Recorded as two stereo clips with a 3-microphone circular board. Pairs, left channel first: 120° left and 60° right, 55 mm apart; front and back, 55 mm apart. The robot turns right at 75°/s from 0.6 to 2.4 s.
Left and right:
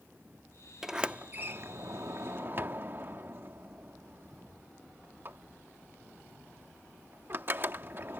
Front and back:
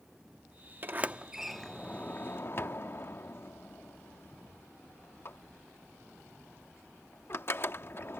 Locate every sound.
0.8 s a sliding door: 145° right; by 8.2 s 25° right